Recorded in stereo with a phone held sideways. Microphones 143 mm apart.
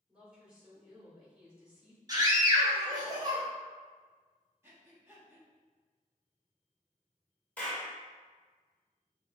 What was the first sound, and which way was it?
A woman speaking, 5° right (ahead or behind).